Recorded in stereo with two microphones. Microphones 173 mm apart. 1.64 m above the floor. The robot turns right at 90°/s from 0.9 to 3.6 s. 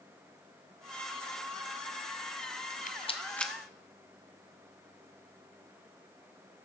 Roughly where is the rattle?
Left.